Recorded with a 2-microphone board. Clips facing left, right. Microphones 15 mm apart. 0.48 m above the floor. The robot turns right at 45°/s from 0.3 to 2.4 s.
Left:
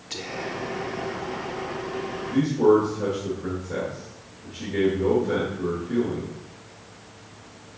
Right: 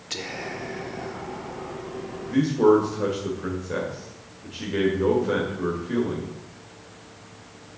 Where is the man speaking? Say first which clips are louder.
Right 1 dB; 40° right (ahead or behind), 1.9 m; by 6.3 s 45° right (ahead or behind), 1.9 m.